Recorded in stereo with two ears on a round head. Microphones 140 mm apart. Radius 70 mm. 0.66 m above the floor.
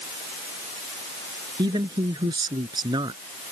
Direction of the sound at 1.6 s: 25° right (ahead or behind).